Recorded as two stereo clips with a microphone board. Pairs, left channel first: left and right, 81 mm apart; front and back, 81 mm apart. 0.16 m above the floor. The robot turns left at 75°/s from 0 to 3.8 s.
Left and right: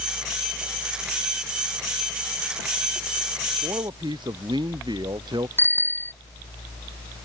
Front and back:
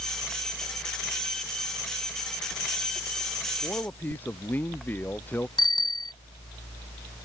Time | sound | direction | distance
3.6 | a man speaking | 55° right | ?
5.6 | a bicycle bell | 25° left | ?